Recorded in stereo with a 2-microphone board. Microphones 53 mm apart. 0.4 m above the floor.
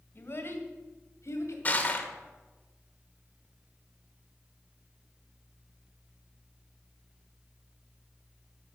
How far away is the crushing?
About 1.1 m.